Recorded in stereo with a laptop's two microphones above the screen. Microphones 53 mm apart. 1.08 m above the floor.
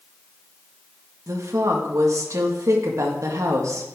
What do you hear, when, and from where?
1.3 s a woman speaking: 70° right (ahead or behind), 1.7 m